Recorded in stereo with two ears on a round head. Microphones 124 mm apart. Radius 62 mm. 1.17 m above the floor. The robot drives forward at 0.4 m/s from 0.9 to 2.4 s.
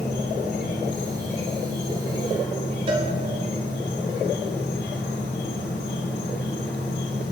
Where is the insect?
80° left, 4.5 m; by 7.3 s 85° left, 4 m.